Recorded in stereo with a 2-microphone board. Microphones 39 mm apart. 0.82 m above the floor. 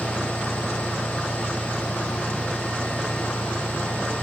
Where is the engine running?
70° left (ahead or behind).